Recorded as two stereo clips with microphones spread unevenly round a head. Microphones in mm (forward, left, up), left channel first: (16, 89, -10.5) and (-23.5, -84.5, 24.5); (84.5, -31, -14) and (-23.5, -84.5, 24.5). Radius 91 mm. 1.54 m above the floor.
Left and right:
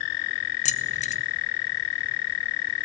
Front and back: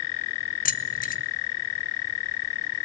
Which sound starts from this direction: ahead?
Keys jangling, at 0.7 s.